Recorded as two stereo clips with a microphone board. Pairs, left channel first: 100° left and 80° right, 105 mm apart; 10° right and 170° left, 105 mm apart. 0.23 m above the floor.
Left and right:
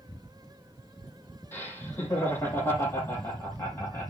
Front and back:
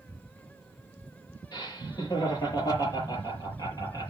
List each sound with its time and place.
1.5 s laughter: 35° left, 7.5 m